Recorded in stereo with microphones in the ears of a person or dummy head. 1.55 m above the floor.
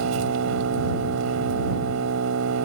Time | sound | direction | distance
0.0 | an engine running | 80° right | ?